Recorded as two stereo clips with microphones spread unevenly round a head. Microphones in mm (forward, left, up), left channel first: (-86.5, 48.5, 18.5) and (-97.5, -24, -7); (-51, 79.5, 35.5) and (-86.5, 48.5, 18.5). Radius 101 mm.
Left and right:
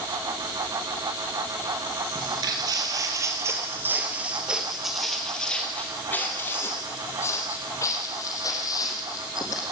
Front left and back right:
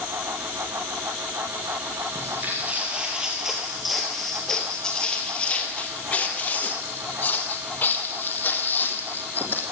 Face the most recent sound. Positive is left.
turn(degrees=65)